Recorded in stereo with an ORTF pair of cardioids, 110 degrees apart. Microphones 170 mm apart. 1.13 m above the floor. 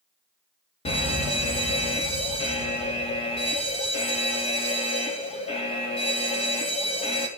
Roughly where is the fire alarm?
Ahead left.